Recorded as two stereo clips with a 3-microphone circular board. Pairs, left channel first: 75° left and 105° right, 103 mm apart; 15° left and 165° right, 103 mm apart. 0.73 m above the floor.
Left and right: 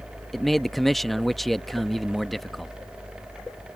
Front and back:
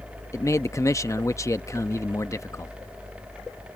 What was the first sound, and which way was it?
A man speaking, 10° right.